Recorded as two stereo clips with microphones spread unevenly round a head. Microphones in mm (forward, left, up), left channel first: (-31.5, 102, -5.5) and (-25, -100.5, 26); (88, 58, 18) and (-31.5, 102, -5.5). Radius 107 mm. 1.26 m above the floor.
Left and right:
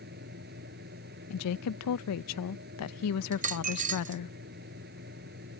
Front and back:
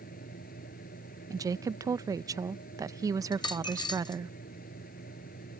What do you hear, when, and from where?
0.0 s a fan: 40° right
1.3 s a woman speaking: 95° left
3.3 s a dropped coin: 60° right